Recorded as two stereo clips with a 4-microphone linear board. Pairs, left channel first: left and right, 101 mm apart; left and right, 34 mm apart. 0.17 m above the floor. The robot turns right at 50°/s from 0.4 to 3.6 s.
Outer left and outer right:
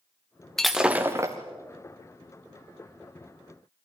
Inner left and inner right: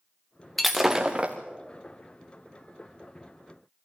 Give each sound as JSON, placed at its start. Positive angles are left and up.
{"t": 0.6, "sound": "breaking glass", "azimuth_deg": 175, "distance_m": 2.0}